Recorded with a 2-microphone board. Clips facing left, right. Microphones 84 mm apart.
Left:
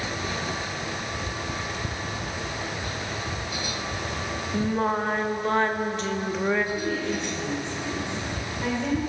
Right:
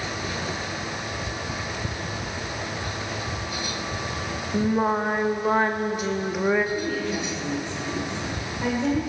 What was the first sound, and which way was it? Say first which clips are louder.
Singing: right 3 dB; 10° right (ahead or behind).